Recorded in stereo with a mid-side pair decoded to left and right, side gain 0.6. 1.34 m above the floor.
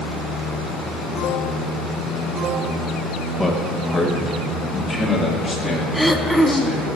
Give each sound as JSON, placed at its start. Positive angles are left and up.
{"t": 3.4, "sound": "a man speaking", "azimuth_deg": 15, "distance_m": 1.1}
{"t": 5.9, "sound": "throat clearing", "azimuth_deg": 0, "distance_m": 0.5}